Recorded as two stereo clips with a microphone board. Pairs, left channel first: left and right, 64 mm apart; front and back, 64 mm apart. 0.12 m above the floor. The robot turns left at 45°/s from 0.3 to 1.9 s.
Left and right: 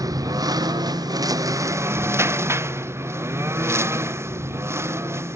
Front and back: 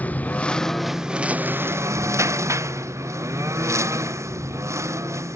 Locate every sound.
0.0 s a lawn mower: 65° right; by 5.4 s 135° right